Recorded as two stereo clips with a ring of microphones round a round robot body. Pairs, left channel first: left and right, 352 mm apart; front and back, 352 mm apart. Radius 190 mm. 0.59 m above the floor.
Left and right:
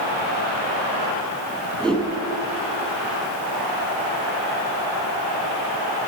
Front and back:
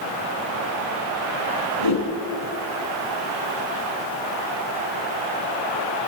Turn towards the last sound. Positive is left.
turn(degrees=0)